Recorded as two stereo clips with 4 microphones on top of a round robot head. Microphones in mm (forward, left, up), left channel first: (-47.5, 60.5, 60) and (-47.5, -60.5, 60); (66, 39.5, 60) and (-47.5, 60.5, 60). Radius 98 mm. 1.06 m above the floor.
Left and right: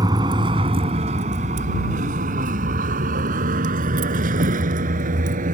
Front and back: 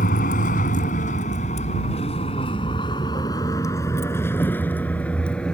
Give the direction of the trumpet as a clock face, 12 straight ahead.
No trumpet in this recording.